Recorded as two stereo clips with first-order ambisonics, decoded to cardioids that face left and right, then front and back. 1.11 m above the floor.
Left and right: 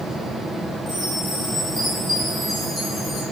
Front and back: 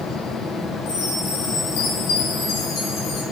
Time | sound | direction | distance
0.9 | a chime | 5° left | 6.5 m